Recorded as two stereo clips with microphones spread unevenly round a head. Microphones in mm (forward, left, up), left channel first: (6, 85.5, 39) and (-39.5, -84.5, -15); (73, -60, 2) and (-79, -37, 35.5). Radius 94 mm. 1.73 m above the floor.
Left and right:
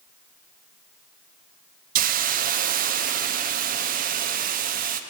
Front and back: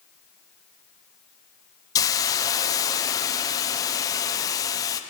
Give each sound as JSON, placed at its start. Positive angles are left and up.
{"t": 1.9, "sound": "a hiss", "azimuth_deg": -80, "distance_m": 0.5}